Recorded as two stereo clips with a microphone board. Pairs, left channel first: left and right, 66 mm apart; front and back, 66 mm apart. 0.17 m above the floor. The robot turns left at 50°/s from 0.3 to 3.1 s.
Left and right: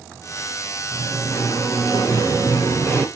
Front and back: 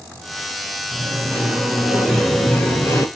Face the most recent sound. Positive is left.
turn(degrees=30)